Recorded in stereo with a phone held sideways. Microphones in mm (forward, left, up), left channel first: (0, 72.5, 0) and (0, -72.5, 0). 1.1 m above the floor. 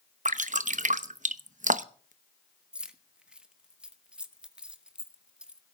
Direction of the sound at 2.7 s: 5° right (ahead or behind).